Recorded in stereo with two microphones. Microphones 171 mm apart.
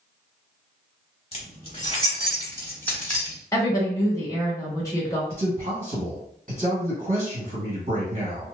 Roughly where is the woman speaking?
Centre.